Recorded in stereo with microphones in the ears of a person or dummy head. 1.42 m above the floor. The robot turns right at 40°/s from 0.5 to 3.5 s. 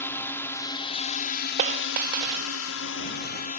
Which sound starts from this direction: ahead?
A drone, at 0.0 s.